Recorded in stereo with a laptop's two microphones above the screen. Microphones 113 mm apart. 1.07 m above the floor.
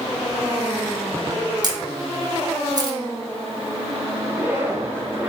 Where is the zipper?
20° right (ahead or behind), 3 m.